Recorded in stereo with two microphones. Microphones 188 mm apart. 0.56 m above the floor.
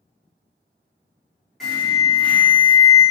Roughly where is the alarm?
Centre.